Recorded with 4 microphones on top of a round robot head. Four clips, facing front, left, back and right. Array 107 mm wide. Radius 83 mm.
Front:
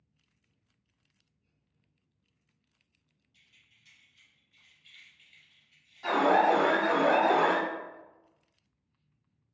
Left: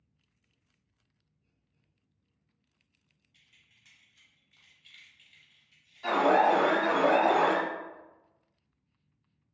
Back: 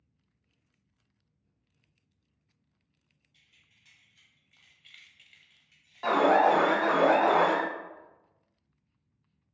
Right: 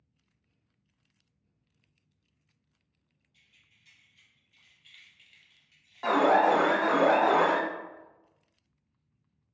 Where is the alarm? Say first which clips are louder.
Right 1 dB, back 2 dB; 130° right, 0.7 m.